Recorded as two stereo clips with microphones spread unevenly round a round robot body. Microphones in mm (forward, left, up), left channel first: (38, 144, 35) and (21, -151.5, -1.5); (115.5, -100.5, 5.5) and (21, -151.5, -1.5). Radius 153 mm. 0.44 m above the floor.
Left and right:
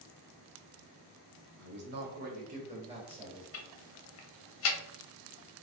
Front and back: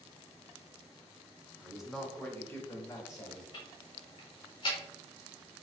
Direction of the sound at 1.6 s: 80° right.